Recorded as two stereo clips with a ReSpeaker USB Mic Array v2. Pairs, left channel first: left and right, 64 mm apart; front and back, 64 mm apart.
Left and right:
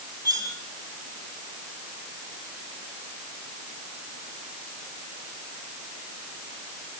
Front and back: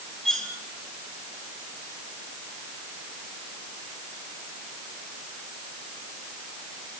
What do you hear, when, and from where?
0.2 s cutlery clinking: 80° right, 3 m